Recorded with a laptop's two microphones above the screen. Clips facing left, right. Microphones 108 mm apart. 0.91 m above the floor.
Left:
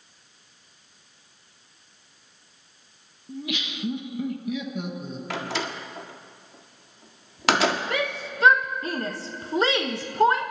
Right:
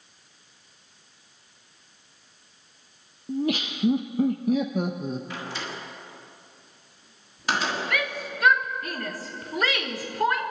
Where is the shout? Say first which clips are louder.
Left 2 dB; 25° left (ahead or behind), 1.0 m.